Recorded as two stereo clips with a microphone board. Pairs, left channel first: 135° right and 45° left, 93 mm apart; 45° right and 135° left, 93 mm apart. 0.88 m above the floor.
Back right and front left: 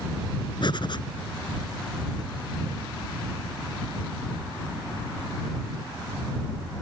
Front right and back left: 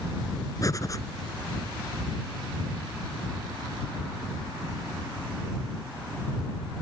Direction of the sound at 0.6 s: 100° right.